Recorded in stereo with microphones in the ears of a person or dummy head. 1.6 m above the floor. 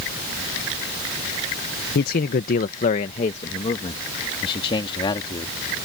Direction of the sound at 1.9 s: 55° left (ahead or behind).